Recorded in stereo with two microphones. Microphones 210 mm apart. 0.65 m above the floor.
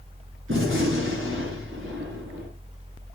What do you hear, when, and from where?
0.5 s a gunshot: 70° right (ahead or behind), 5.5 m